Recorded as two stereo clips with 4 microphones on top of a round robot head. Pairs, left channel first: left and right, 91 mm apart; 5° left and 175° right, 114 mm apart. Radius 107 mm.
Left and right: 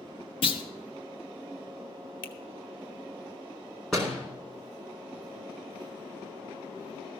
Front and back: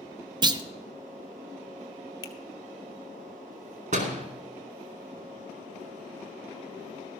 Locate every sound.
0.4 s a clunk: 135° left, 0.6 m
2.2 s a finger snap: 60° left, 1.5 m
3.9 s a door slam: 175° left, 2.5 m